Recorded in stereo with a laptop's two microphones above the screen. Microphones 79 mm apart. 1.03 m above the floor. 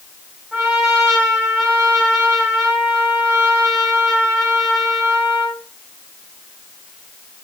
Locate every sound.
0.5 s a trumpet: 10° right (ahead or behind), 3.5 m